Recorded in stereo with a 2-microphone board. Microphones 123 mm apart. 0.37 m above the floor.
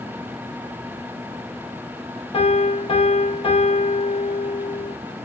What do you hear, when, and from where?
2.3 s a piano: 45° left (ahead or behind), 0.7 m